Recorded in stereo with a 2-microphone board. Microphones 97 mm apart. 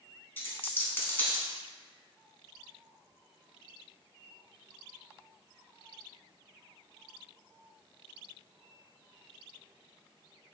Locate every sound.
0.4 s a dropped coin: 20° left (ahead or behind), 0.8 m